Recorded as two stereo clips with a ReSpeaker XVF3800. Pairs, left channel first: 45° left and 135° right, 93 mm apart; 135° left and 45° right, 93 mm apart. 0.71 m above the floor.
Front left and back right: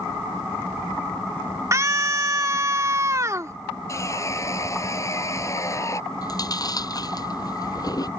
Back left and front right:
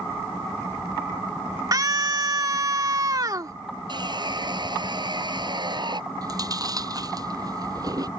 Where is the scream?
85° right.